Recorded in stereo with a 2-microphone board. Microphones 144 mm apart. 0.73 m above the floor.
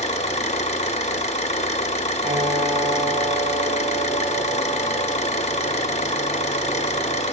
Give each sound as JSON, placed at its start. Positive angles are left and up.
{"t": 0.0, "sound": "an engine running", "side_deg": 50, "distance_m": 0.8}
{"t": 2.2, "sound": "a piano", "side_deg": -50, "distance_m": 2.0}